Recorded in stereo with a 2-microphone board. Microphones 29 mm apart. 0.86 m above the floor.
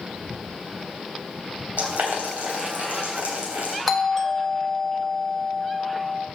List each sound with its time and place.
1.8 s boiling: 75° right (ahead or behind), 3.5 m
3.9 s a doorbell: 5° left (ahead or behind), 1.3 m